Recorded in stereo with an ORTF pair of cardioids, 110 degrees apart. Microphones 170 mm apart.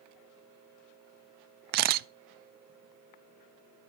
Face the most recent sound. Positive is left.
turn(degrees=-70)